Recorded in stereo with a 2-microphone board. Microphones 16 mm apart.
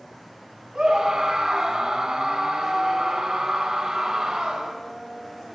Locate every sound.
0.8 s a scream: 45° right (ahead or behind), 5 m